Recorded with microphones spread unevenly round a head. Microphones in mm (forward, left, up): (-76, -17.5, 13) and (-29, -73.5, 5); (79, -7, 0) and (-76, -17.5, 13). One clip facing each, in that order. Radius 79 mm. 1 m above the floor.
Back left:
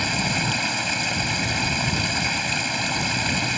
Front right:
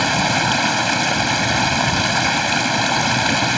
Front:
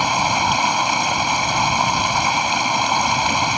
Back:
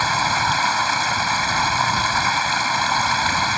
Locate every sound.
0.0 s running water: 70° right